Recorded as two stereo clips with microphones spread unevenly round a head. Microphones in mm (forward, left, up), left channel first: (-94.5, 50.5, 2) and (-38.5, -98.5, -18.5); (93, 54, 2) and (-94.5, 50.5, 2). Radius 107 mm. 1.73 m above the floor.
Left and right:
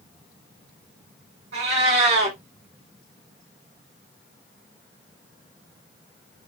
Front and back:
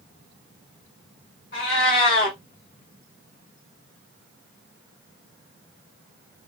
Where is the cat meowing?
45° right, 2 m.